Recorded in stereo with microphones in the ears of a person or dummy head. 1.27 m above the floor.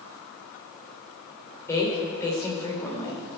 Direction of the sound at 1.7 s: 10° left (ahead or behind).